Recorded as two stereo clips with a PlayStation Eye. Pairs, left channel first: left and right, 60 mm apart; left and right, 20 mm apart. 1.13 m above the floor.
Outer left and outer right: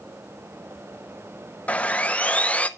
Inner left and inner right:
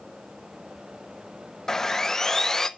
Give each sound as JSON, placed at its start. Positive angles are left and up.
{"t": 1.7, "sound": "sawing", "side_deg": 20, "distance_m": 0.8}